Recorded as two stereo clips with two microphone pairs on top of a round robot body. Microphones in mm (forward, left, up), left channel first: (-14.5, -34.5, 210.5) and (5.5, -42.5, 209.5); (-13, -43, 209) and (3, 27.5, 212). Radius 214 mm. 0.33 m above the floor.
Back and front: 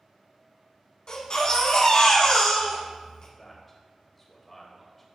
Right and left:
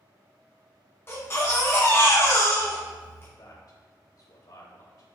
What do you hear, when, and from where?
1.1 s a baby crying: 160° right, 1.9 m
3.4 s a man speaking: 125° right, 2.5 m